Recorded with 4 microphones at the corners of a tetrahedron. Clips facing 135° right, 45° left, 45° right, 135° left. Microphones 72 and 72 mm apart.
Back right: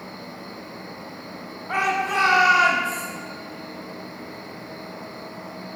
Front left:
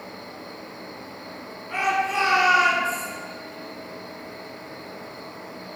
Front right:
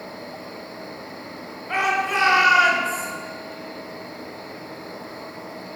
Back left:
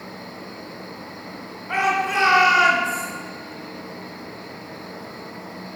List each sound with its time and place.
0.0 s an insect: 165° right, 2.5 m
1.7 s a shout: 150° right, 1.9 m